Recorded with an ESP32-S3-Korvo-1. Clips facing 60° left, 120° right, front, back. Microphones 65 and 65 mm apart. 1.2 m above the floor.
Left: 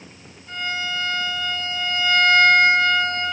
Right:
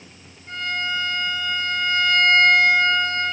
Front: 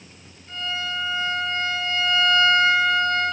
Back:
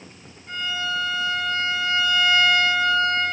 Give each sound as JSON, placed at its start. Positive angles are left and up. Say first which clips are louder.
{"t": 0.5, "sound": "a violin", "louder": "right 1 dB, back 2 dB", "azimuth_deg": -155, "distance_m": 3.0}